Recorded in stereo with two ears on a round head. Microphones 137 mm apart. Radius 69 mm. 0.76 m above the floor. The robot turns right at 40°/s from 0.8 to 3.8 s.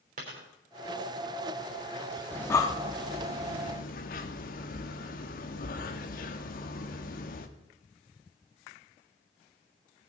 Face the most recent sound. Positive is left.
turn(degrees=60)  # may be behind; listen again after turning